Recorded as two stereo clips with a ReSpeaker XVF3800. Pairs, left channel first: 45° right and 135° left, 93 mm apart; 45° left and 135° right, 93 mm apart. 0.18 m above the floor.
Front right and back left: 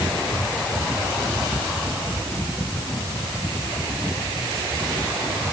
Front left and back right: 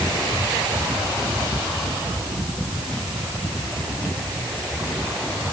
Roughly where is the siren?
I don't hear a siren.